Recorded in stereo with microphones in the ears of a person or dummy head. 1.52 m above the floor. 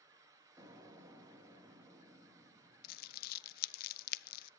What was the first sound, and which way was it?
An explosion, 20° right (ahead or behind).